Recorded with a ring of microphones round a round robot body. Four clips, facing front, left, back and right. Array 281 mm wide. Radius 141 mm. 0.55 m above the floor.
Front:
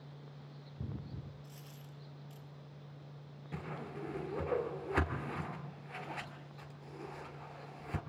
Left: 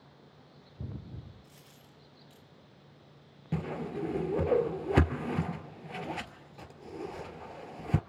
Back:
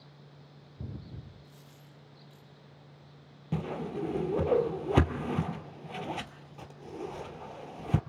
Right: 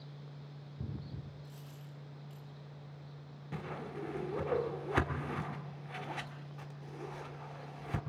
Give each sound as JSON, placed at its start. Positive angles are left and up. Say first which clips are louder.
{"t": 1.4, "sound": "a dropped coin", "louder": "right 5 dB, front 1 dB", "azimuth_deg": 15, "distance_m": 7.0}
{"t": 3.5, "sound": "a whoosh", "louder": "left 7 dB, back 10 dB", "azimuth_deg": 140, "distance_m": 1.4}